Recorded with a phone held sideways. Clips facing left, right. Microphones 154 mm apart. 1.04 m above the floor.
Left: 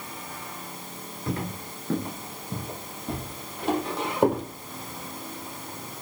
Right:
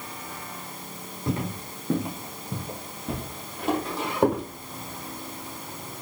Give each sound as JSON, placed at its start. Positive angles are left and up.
{"t": 1.3, "sound": "footsteps", "side_deg": -20, "distance_m": 1.1}